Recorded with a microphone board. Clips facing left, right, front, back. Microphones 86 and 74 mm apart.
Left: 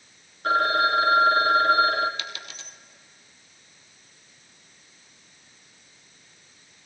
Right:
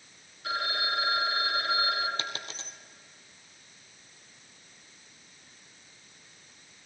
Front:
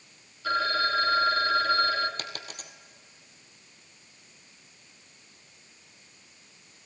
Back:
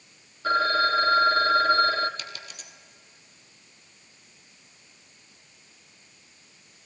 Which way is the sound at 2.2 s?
35° right.